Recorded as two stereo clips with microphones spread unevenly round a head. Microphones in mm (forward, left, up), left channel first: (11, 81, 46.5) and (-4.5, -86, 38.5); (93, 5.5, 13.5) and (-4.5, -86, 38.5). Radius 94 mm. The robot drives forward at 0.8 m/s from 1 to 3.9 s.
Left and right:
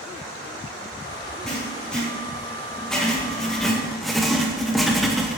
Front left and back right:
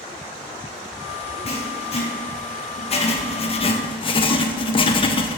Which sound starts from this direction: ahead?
Writing, at 1.5 s.